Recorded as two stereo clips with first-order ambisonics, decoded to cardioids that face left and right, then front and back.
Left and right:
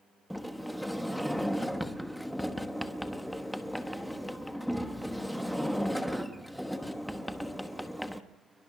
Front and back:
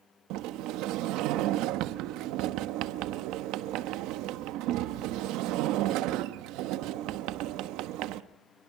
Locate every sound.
0.3 s a sliding door: straight behind, 1.0 m